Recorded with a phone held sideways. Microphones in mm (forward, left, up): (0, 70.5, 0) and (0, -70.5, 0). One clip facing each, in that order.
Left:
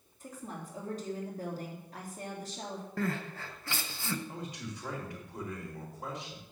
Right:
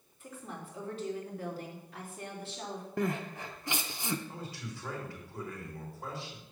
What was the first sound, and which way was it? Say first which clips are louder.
A woman speaking: left 1 dB; 40° left (ahead or behind).